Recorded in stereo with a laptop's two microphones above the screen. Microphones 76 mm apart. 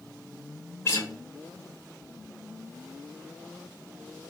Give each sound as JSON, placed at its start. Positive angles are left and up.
{"t": 0.8, "sound": "a guitar", "side_deg": 35, "distance_m": 1.0}